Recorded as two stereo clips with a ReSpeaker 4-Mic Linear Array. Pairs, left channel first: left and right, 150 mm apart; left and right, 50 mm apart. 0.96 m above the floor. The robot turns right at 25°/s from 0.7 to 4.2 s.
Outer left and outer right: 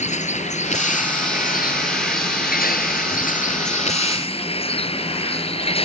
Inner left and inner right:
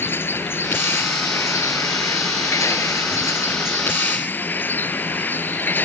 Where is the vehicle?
50° left; by 5.9 s 140° left.